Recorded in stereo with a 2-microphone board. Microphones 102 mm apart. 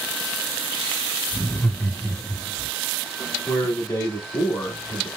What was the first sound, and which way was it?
Laughter, 25° left (ahead or behind).